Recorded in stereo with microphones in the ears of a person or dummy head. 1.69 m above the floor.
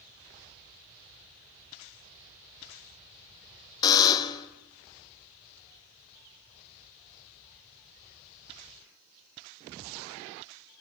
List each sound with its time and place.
3.8 s a buzzer: 20° left (ahead or behind), 1.2 m